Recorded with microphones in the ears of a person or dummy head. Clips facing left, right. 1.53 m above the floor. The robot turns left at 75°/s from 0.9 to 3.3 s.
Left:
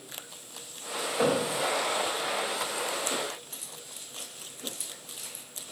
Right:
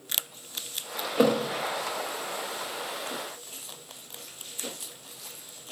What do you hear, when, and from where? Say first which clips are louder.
1.2 s a thud: right 4 dB; 45° right (ahead or behind), 1.1 m
3.5 s keys jangling: even; 25° left (ahead or behind), 2.5 m